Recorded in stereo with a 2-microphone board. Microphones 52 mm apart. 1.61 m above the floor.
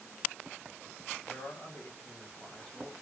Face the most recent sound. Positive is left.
turn(degrees=15)  # may be behind; listen again after turning